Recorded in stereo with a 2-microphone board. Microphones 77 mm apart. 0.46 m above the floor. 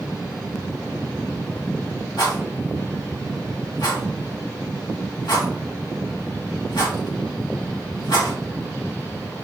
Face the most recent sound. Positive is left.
turn(degrees=70)  # may be behind; listen again after turning